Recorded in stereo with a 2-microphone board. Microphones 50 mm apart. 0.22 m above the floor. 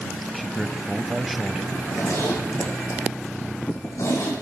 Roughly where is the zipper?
Left.